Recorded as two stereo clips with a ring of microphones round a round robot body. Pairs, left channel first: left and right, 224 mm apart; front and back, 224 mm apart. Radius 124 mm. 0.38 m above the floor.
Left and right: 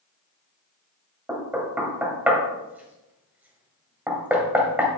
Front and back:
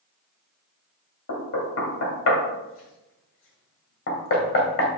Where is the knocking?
10° right, 1.7 m.